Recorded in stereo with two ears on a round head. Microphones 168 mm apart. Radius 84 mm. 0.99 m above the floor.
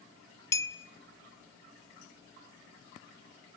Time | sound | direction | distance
0.5 | a clink | 15° left (ahead or behind) | 0.7 m